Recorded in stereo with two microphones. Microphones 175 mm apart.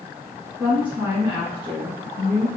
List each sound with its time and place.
0.6 s a woman speaking: 10° right (ahead or behind), 1.5 m